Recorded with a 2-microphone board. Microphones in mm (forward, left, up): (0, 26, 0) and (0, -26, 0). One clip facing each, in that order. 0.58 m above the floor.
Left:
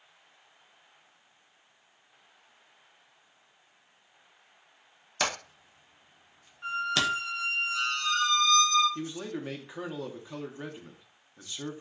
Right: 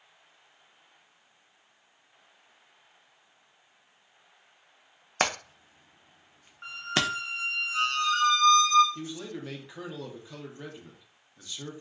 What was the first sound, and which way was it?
Hammering, 40° right (ahead or behind).